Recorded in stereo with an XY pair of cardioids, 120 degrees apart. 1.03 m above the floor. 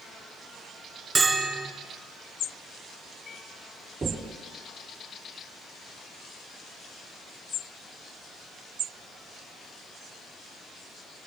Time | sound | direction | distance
1.1 | a bell | 30° right | 4 m
4.0 | knocking | 30° right | 3 m